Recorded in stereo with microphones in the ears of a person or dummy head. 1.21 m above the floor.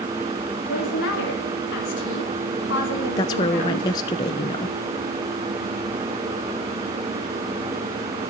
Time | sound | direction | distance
0.7 | a woman speaking | 65° left (ahead or behind) | 2 m
3.2 | a woman speaking | 25° left (ahead or behind) | 0.7 m